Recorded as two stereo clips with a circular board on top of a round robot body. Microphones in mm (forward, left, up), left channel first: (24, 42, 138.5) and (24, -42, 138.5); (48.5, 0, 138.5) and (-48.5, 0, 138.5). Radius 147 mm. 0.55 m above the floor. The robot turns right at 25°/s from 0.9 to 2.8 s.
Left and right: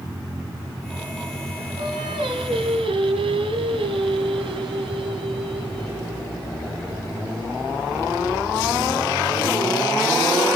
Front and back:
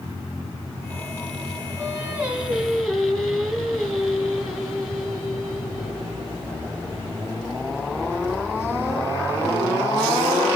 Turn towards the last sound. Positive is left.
turn(degrees=-90)